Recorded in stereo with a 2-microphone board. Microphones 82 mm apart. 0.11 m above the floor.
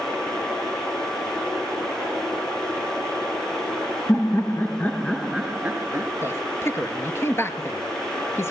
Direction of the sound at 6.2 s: 35° left (ahead or behind).